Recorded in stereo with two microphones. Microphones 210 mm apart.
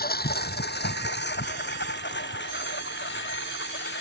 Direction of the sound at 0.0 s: 45° left (ahead or behind).